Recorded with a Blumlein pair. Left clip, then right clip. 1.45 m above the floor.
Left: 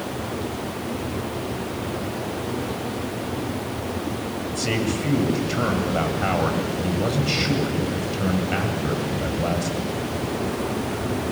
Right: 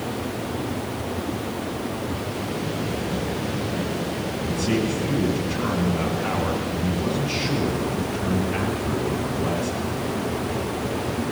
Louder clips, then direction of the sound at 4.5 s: Even; 55° left.